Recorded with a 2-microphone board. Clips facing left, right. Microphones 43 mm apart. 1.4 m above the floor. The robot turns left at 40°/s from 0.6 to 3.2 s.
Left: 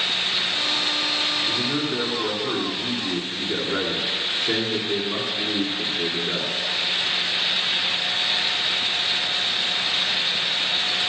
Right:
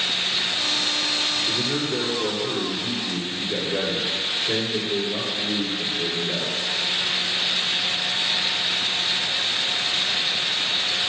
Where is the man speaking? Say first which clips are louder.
Even; 175° left, 3 m; by 6.5 s 105° left, 3 m.